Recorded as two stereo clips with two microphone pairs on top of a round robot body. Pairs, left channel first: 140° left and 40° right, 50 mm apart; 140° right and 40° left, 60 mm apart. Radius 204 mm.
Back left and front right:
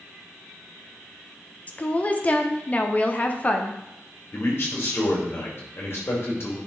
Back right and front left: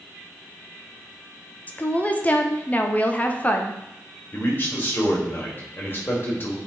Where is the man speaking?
170° left, 2.5 m.